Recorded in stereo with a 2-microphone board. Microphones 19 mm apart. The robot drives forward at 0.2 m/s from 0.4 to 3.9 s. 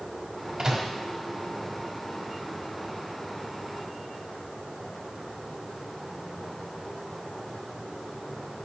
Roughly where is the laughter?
I don't hear laughter.